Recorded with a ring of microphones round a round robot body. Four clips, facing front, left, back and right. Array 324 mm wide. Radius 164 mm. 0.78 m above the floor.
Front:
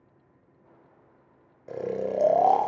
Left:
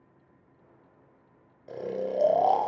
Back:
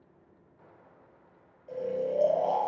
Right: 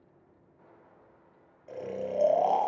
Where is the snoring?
15° left, 0.6 m.